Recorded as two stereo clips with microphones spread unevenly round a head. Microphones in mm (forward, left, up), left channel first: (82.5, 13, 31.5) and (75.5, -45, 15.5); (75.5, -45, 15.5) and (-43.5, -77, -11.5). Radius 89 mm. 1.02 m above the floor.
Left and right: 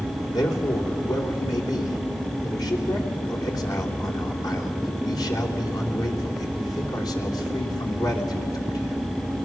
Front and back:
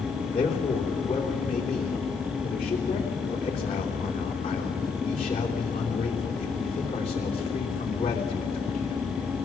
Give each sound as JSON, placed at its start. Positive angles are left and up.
{"t": 0.3, "sound": "a man speaking", "azimuth_deg": 80, "distance_m": 3.0}